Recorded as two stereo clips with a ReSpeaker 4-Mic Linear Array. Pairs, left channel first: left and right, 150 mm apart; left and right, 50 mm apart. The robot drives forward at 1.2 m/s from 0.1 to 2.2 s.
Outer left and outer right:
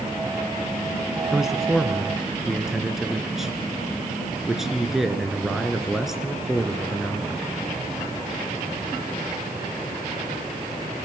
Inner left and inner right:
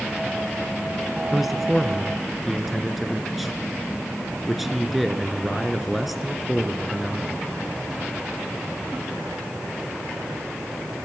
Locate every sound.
1.3 s a man speaking: 5° right (ahead or behind), 1.2 m; by 7.5 s centre (ahead or behind), 1.9 m